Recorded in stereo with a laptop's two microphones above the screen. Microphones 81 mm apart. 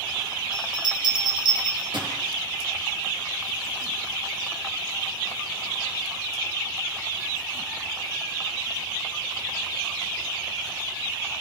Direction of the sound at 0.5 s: 65° right (ahead or behind).